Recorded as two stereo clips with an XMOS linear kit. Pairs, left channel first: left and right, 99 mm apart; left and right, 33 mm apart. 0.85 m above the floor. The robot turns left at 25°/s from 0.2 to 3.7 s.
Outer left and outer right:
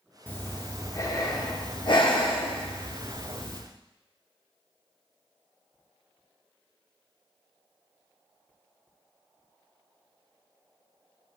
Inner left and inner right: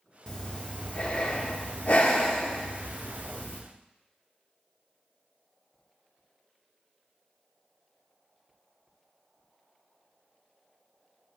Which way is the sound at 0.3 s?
155° left.